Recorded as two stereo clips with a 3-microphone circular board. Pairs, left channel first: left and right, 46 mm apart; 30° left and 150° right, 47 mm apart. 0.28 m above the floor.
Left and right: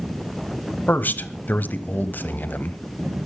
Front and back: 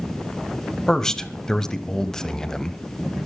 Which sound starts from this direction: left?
A man speaking, at 0.9 s.